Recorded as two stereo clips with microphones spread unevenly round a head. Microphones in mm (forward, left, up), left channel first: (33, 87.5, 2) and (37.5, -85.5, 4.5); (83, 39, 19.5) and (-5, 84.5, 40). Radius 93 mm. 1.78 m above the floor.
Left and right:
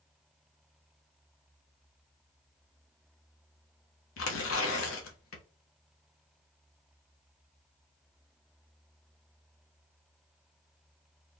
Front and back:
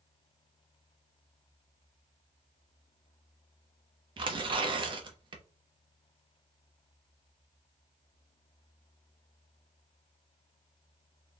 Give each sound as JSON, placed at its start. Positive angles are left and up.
{"t": 4.2, "sound": "tearing paper", "azimuth_deg": 115, "distance_m": 0.8}